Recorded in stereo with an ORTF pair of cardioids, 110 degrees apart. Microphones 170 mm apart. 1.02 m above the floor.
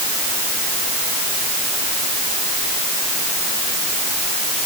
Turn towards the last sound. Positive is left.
No sound to turn to.